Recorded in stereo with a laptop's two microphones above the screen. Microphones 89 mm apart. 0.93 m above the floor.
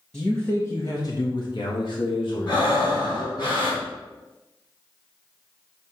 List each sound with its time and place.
0.1 s a man speaking: 10° left (ahead or behind), 1.3 m; by 3.5 s 70° left (ahead or behind), 3 m
2.5 s breathing: 60° left (ahead or behind), 3 m